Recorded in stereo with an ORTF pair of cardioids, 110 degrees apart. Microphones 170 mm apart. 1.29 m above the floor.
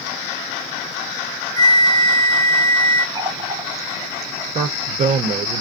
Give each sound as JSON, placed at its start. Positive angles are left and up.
{"t": 1.6, "sound": "a flute", "azimuth_deg": 20, "distance_m": 0.6}
{"t": 3.1, "sound": "a running tap", "azimuth_deg": -20, "distance_m": 0.7}
{"t": 4.5, "sound": "a man speaking", "azimuth_deg": -45, "distance_m": 0.6}